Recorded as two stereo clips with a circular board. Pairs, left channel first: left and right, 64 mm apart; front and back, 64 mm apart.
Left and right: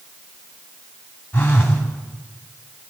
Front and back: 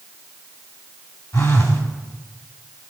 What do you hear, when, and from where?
1.3 s a phone buzzing: 30° left, 3 m